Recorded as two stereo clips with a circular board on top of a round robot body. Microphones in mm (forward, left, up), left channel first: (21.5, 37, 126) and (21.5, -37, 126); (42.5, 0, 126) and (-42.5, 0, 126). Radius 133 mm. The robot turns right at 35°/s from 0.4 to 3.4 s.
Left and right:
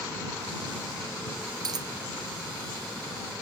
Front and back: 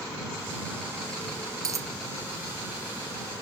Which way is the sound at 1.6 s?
130° right.